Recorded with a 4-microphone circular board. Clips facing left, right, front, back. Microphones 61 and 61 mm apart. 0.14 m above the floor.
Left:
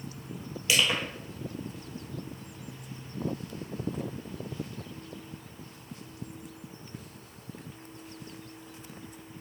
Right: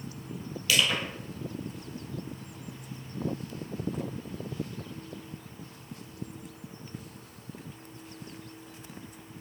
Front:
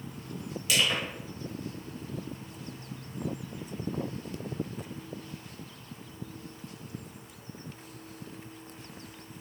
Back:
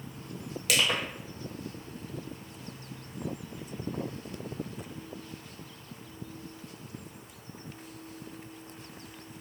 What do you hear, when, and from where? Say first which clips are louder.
0.7 s crushing: even, even; 160° left, 1.2 m